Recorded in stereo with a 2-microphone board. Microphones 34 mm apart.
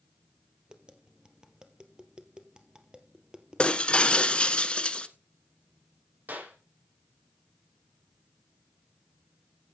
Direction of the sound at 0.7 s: 25° right (ahead or behind).